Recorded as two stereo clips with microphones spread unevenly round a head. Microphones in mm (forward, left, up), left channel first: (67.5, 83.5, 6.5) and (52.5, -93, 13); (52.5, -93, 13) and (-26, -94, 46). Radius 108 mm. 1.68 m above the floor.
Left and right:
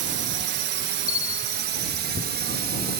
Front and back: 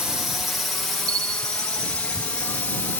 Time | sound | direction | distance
0.0 | a drone | 85° right | ?
1.1 | a bell | 160° left | ?